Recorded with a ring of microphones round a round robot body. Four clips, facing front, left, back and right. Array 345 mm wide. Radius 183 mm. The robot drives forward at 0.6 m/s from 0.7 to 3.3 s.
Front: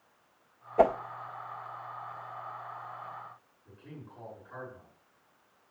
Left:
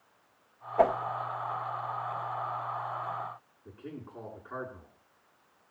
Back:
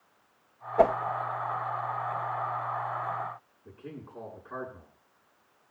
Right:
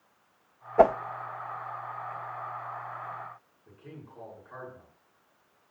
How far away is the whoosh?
About 1.0 m.